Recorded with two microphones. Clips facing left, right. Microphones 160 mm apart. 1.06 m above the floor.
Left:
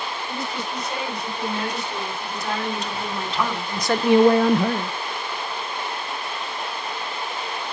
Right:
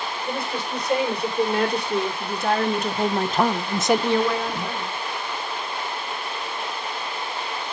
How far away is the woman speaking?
About 5.5 m.